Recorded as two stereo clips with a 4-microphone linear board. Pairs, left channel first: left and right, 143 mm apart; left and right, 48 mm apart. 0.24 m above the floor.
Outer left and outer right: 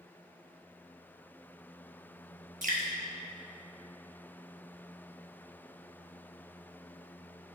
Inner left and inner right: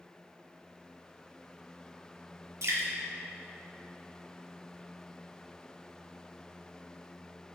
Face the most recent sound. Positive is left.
turn(degrees=-80)